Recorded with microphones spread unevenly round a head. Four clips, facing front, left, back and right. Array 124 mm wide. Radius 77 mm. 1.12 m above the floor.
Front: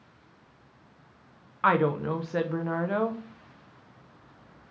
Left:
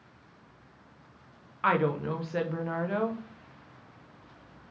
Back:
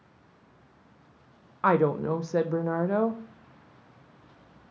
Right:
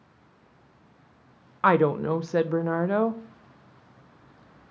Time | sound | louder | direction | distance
1.6 | a woman speaking | right 6 dB, back 1 dB | 60° right | 0.5 m